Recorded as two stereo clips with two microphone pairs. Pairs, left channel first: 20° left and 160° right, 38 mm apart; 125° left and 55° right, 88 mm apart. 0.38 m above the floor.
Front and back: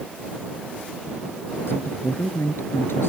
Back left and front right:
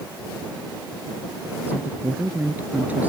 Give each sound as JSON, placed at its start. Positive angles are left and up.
{"t": 1.7, "sound": "a woman speaking", "azimuth_deg": 15}